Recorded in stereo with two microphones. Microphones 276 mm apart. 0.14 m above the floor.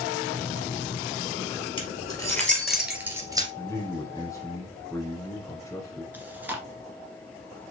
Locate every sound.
1.8 s keys jangling: 20° left (ahead or behind), 2.5 m; by 3.5 s 15° right (ahead or behind), 2 m
3.6 s a man speaking: 10° left (ahead or behind), 1.5 m
6.1 s chewing: 5° right (ahead or behind), 1.4 m